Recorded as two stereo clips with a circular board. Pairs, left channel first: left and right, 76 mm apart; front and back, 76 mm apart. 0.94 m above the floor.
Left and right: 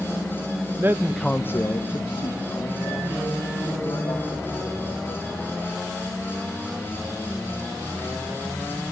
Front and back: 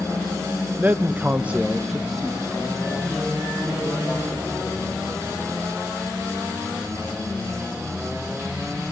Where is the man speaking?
125° right, 0.8 m; by 5.6 s 85° left, 4.5 m.